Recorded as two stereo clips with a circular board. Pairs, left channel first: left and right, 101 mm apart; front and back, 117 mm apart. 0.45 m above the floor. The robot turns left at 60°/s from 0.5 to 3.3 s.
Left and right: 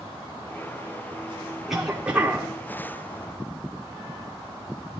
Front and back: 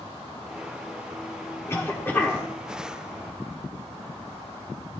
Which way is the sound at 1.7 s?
5° right.